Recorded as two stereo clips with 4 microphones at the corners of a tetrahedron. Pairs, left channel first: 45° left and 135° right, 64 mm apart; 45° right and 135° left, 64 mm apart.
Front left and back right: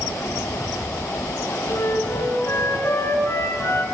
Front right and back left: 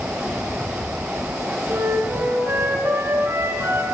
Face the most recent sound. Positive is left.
turn(degrees=85)